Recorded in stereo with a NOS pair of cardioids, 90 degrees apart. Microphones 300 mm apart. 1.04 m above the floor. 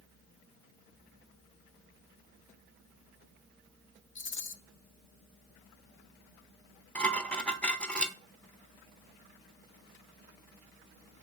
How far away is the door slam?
No door slam in this recording.